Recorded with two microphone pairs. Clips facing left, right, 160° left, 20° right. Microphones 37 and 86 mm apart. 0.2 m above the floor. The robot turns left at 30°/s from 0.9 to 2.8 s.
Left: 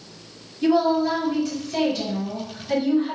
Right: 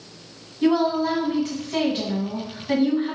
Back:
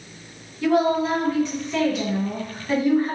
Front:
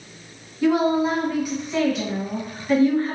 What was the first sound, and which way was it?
A woman speaking, 80° right.